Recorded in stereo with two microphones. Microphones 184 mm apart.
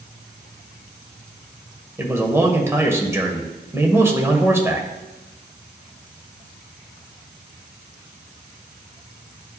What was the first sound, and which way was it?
A man speaking, 15° right (ahead or behind).